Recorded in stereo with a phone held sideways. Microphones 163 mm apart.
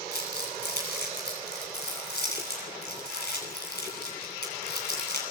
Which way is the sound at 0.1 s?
85° left.